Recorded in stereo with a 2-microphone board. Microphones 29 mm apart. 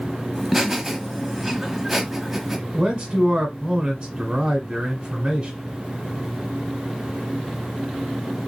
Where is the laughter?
5° right (ahead or behind), 1.0 m.